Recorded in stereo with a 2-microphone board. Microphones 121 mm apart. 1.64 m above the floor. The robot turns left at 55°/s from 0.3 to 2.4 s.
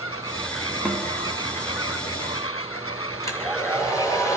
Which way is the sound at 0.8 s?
5° right (ahead or behind).